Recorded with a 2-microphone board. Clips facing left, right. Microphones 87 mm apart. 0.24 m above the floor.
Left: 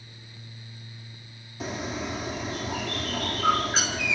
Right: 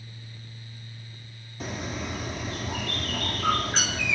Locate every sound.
1.6 s a bird: 5° left (ahead or behind), 2.5 m